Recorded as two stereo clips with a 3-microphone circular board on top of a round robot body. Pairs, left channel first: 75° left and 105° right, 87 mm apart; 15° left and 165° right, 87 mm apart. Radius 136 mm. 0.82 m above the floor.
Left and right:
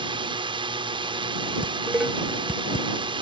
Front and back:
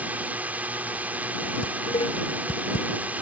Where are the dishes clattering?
25° right.